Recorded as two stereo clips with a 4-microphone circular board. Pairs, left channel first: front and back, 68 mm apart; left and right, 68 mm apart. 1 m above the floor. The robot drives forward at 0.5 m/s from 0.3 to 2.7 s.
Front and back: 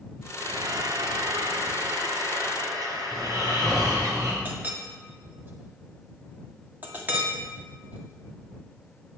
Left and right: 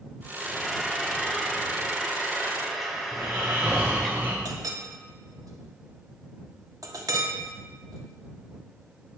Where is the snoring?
150° right, 3 m.